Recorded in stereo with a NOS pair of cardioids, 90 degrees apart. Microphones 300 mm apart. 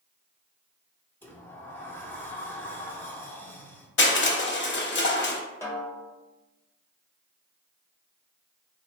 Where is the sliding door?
10° left, 0.7 m.